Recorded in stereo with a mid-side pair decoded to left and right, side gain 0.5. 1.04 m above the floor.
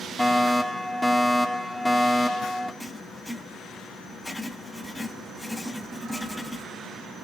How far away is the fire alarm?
About 4 m.